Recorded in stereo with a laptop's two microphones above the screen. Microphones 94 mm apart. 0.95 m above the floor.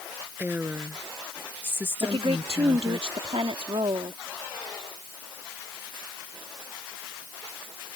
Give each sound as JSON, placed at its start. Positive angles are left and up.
{"t": 0.4, "sound": "a woman speaking", "side_deg": -20}
{"t": 2.0, "sound": "a woman speaking", "side_deg": -75}